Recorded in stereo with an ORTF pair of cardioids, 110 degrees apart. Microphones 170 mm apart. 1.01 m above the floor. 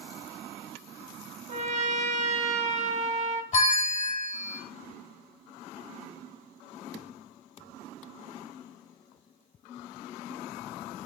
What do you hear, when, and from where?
1.5 s a trumpet: 40° right, 1.3 m
3.5 s a bell: 45° left, 1.3 m